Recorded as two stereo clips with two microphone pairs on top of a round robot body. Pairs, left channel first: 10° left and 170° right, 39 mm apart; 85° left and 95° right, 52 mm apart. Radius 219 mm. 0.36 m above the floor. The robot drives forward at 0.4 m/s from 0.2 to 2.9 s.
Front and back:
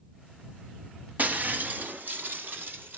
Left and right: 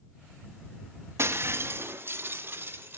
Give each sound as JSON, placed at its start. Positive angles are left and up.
{"t": 1.2, "sound": "breaking glass", "azimuth_deg": -130, "distance_m": 1.3}